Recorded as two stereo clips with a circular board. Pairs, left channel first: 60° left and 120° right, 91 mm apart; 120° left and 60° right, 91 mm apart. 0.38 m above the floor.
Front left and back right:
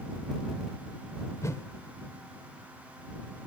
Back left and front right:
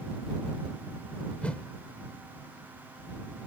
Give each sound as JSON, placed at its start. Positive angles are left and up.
{"t": 1.4, "sound": "a whoosh", "azimuth_deg": 55}